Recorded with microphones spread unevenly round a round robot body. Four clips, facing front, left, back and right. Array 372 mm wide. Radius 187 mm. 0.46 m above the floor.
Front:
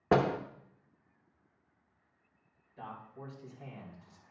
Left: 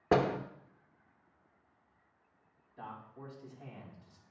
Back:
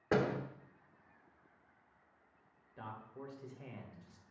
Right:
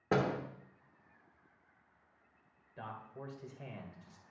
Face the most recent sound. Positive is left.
turn(degrees=-110)